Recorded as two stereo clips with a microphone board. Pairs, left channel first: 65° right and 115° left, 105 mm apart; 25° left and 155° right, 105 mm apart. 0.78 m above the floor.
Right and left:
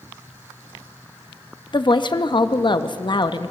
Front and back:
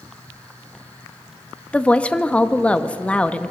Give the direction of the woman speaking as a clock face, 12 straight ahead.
2 o'clock.